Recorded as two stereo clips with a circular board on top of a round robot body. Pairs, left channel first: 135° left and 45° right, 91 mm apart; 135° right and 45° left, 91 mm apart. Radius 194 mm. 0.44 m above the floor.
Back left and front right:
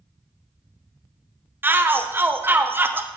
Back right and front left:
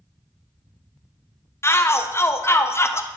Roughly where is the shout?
Right.